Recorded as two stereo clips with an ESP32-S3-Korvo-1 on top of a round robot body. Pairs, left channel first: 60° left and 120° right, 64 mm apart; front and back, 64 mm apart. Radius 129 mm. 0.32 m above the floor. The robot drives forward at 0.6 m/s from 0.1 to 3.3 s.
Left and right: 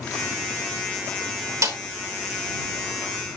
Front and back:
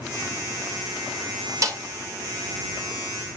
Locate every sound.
1.6 s a snare drum: 150° right, 3.5 m